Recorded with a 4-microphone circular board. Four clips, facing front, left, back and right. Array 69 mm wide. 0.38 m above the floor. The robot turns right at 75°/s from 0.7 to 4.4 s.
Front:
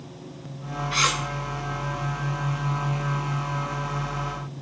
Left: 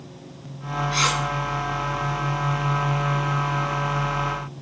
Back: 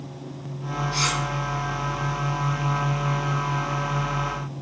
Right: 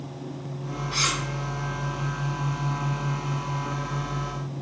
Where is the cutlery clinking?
15° left, 0.7 m; by 1.2 s 40° left, 0.7 m.